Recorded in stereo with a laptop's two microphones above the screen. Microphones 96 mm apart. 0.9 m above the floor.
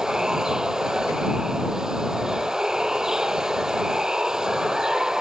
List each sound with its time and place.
0.0 s running water: 5° right (ahead or behind)